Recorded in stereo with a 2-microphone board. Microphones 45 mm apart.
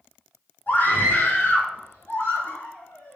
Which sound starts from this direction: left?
A scream, at 0.7 s.